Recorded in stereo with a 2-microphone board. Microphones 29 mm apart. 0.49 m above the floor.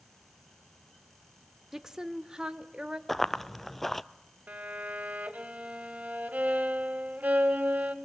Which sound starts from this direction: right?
A violin, at 4.5 s.